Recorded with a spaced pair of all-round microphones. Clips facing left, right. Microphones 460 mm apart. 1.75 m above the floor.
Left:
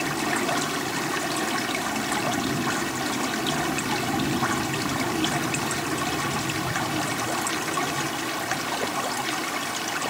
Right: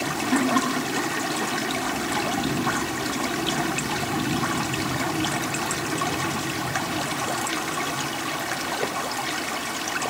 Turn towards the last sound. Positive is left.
turn(degrees=-85)